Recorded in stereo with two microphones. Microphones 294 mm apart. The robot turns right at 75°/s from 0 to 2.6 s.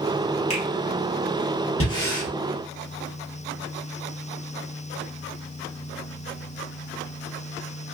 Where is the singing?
No singing in this recording.